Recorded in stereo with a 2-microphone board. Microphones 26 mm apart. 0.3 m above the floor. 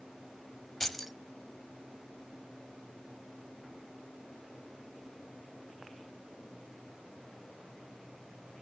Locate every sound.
0.8 s keys jangling: 5° left (ahead or behind), 0.9 m